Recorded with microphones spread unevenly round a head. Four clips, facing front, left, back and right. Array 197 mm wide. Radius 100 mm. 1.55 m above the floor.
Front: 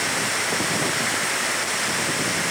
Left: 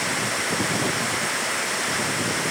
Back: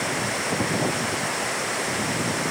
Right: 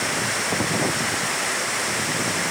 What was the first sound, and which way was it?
Only background noise.